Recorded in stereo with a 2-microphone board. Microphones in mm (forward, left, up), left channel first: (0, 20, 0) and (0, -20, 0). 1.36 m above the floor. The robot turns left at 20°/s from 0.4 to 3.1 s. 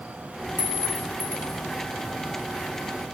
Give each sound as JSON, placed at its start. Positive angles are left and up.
{"t": 0.6, "sound": "a clink", "side_deg": -55, "distance_m": 1.3}